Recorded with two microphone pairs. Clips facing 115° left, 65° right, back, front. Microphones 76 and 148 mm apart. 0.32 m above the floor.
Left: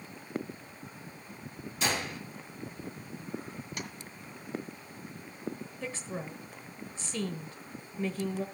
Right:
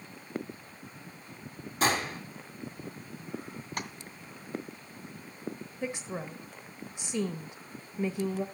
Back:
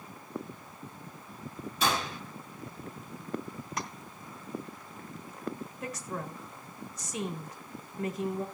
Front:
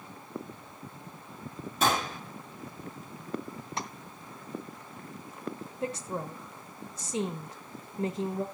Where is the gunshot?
30° right, 3 m.